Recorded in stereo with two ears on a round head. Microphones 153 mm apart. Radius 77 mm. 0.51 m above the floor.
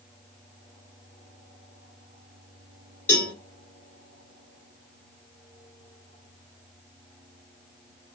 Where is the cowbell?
15° left (ahead or behind), 2 m.